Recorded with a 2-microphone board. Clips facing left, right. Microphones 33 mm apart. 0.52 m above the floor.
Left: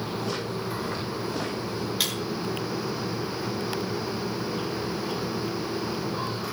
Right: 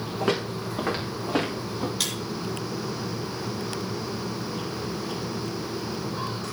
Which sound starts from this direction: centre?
Breaking glass, at 2.0 s.